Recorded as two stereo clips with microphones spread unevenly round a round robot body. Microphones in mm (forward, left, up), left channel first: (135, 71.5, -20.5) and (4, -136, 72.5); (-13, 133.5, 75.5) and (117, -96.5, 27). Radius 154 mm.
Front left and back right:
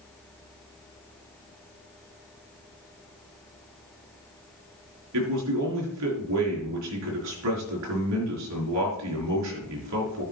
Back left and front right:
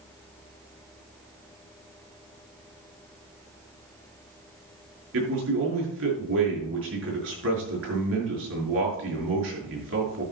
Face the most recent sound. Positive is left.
turn(degrees=-105)